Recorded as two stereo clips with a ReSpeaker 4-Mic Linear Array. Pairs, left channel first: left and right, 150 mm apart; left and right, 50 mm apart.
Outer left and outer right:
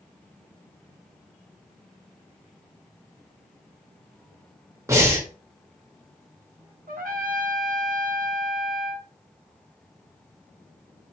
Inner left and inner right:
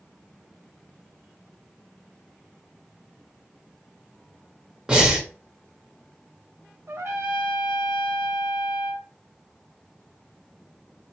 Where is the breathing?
20° right (ahead or behind), 0.7 m.